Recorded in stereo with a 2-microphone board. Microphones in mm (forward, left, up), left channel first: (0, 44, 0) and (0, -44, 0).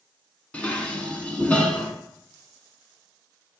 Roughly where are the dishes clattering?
Centre.